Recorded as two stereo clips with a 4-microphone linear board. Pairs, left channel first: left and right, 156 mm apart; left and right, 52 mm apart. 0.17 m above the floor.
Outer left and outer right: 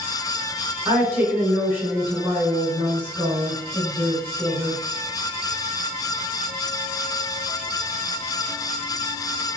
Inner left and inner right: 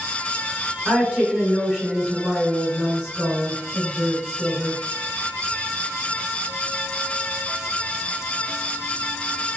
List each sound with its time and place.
0.8 s a woman speaking: 15° right (ahead or behind), 1.7 m